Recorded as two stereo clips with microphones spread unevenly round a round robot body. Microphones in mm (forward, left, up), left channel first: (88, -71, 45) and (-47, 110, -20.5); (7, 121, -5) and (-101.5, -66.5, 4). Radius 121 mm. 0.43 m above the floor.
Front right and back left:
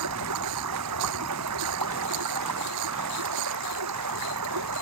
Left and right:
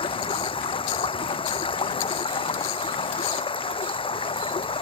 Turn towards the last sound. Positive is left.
turn(degrees=125)